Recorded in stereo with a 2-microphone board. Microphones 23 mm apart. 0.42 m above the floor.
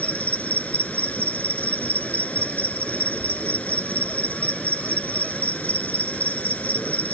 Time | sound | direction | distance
0.0 | an insect | 70° left (ahead or behind) | ?